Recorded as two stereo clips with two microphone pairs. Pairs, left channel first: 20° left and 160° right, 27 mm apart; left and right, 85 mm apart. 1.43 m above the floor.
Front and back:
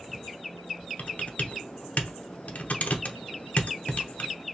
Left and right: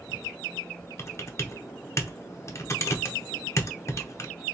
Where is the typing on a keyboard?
35° left, 0.8 m.